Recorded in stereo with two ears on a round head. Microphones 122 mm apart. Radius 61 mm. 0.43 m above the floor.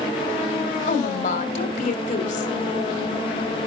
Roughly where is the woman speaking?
Left.